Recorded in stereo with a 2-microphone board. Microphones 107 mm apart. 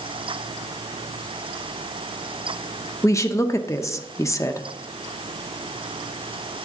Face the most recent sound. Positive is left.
turn(degrees=30)  # may be behind; listen again after turning